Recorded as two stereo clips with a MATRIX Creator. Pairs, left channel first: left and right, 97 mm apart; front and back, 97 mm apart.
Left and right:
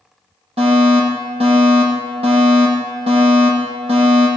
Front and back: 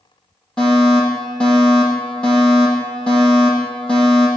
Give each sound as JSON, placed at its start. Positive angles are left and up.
{"t": 0.6, "sound": "a fire alarm", "azimuth_deg": -80, "distance_m": 10.0}